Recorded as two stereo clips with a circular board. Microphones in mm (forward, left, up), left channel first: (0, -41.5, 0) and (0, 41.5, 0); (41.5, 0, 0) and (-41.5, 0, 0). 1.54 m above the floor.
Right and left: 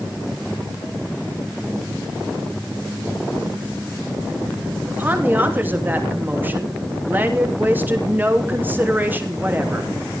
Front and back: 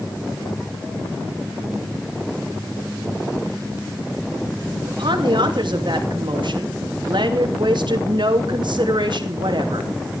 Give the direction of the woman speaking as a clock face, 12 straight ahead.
7 o'clock.